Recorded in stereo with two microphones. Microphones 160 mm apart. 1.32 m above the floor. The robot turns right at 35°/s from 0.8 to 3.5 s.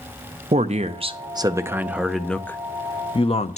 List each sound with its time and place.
0.5 s a man speaking: 45° right, 0.6 m; by 3.6 s 45° left, 0.6 m